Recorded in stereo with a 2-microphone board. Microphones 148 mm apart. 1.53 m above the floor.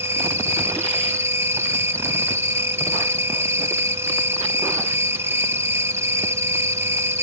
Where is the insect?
15° right (ahead or behind).